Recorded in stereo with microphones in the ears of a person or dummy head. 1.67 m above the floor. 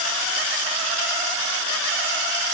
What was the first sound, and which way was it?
Only background noise.